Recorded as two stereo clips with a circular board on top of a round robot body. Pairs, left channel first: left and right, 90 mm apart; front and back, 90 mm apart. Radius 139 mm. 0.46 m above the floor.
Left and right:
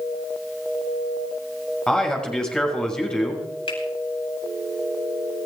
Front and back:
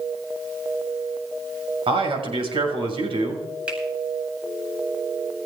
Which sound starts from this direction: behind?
A man speaking, at 1.9 s.